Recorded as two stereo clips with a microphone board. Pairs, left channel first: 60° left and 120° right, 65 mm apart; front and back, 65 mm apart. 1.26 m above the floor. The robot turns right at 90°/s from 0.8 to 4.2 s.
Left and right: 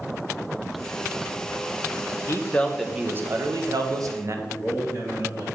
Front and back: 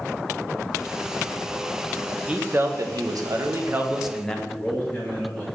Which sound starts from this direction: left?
A man speaking, at 2.3 s.